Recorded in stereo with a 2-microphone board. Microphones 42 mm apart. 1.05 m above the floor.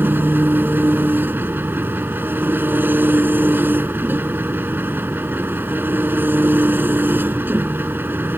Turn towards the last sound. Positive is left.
turn(degrees=-55)  # may be behind; listen again after turning